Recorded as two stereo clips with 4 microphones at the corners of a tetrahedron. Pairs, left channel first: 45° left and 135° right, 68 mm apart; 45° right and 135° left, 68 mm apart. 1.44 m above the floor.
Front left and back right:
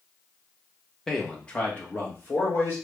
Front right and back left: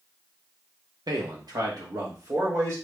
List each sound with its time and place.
1.1 s a man speaking: 125° left, 0.9 m; by 2.8 s 100° left, 1.8 m